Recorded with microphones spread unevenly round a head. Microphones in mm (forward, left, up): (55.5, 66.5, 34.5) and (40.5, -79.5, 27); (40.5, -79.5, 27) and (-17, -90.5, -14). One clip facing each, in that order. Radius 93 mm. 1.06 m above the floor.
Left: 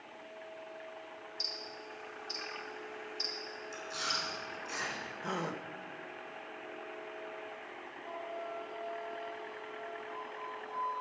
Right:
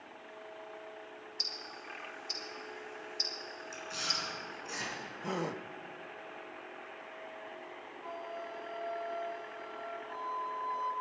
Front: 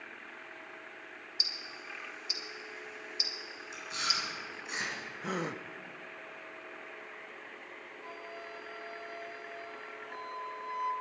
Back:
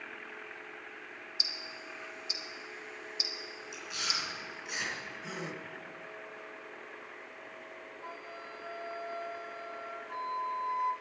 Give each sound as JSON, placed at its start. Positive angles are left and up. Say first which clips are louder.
{"t": 1.4, "sound": "ticking", "louder": "left 2 dB, back 1 dB", "azimuth_deg": -130, "distance_m": 3.0}
{"t": 3.7, "sound": "chewing", "louder": "left 1 dB, front 2 dB", "azimuth_deg": -30, "distance_m": 5.0}
{"t": 5.2, "sound": "a gasp", "louder": "right 2 dB, front 7 dB", "azimuth_deg": -20, "distance_m": 0.8}
{"t": 8.0, "sound": "a flute", "louder": "left 1 dB, even", "azimuth_deg": -100, "distance_m": 2.5}